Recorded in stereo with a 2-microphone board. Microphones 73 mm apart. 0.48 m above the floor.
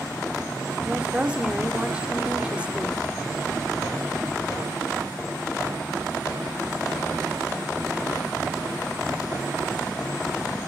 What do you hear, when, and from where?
0.8 s a woman speaking: 15° right (ahead or behind), 1.1 m